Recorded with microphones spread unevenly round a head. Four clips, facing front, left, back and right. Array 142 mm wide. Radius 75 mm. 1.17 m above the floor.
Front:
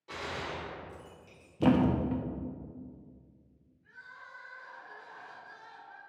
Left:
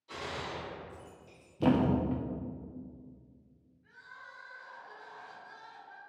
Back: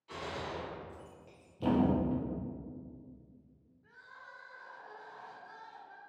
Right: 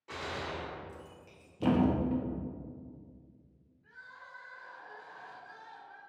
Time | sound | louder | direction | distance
0.1 | a gunshot | right 1 dB, front 2 dB | 50° right | 2 m
1.6 | a thud | left 1 dB, front 3 dB | 35° left | 0.6 m
3.8 | crying | even, front 3 dB | 155° right | 1.7 m